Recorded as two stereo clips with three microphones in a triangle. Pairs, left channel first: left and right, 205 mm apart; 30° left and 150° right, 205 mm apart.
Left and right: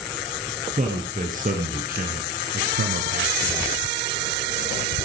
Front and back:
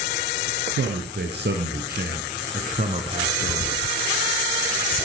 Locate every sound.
0.7 s a man speaking: 135° right, 3 m; by 3.8 s 80° right, 1.6 m